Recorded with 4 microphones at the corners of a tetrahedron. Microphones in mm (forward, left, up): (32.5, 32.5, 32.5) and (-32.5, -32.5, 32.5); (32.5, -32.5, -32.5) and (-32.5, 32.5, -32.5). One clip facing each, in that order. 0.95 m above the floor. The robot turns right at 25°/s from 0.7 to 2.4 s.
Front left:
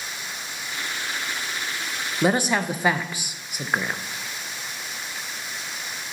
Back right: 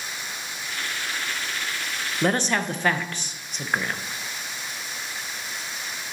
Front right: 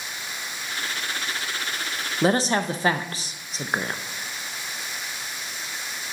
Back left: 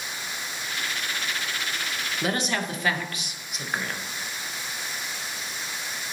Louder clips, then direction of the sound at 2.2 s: Front left 2 dB, front right 7 dB; 35° right.